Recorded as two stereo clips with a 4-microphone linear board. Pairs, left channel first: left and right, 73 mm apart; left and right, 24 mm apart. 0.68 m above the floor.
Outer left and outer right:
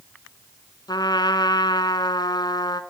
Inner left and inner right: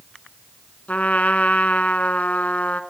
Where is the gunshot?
I don't hear a gunshot.